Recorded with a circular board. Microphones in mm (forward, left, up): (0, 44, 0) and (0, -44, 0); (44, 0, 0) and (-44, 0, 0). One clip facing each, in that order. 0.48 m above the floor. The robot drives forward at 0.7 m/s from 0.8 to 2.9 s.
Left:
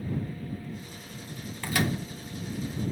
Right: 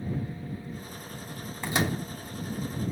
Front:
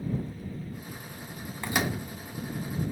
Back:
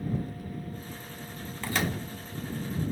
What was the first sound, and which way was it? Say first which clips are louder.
A microwave: even, front 1 dB; 50° right.